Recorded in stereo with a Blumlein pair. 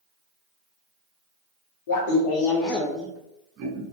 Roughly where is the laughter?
Ahead left.